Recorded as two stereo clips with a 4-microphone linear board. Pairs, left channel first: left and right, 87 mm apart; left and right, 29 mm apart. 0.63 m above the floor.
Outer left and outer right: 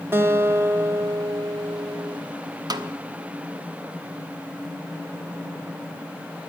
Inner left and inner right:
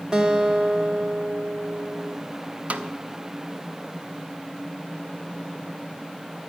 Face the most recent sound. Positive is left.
turn(degrees=-50)  # may be behind; listen again after turning